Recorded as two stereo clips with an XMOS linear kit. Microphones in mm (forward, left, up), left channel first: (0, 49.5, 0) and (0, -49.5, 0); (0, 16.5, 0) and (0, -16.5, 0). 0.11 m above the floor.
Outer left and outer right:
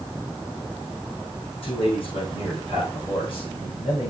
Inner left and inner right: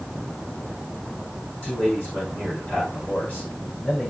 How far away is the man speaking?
About 6.5 m.